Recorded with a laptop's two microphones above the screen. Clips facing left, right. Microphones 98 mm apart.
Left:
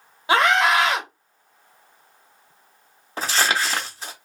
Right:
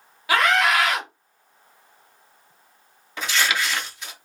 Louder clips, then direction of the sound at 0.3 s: Left 2 dB; 25° left (ahead or behind).